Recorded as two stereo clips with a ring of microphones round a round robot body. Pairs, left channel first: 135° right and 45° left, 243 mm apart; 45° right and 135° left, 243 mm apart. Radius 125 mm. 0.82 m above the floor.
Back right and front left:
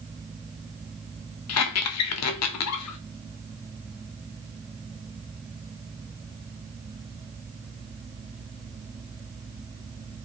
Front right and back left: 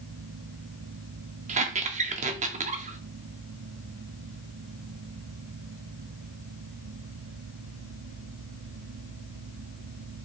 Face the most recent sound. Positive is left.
turn(degrees=-165)